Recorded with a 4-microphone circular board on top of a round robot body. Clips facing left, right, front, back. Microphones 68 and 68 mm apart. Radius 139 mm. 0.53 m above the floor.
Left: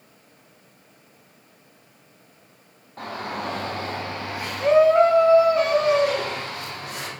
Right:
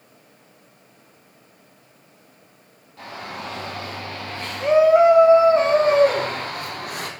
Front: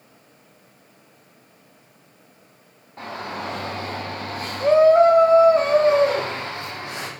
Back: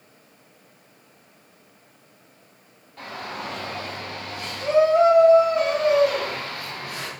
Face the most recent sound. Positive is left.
turn(degrees=-65)